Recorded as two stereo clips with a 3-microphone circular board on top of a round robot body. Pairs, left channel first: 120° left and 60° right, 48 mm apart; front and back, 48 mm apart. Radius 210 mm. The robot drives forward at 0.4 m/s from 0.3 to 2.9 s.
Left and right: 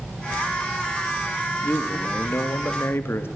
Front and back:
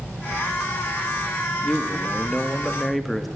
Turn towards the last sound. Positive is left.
turn(degrees=90)